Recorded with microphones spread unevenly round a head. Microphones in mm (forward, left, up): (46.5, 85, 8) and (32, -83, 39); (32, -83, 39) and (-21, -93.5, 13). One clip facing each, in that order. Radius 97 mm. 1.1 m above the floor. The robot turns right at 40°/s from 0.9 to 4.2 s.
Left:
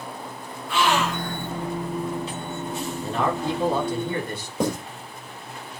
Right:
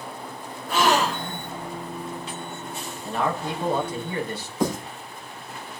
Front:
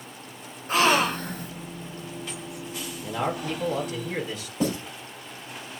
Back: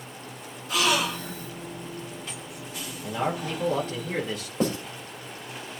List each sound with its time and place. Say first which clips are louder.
0.7 s a gasp: right 1 dB, front 4 dB; 40° right, 0.9 m; by 1.5 s 15° right, 0.9 m
3.0 s a man speaking: left 1 dB, even; 90° left, 2.5 m; by 4.5 s 135° left, 2.5 m
4.6 s writing: even, even; 130° left, 3 m